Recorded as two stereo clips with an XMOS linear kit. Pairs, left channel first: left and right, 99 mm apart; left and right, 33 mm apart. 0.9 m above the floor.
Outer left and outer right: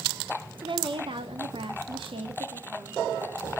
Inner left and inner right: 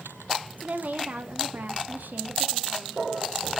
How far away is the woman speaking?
About 1.7 m.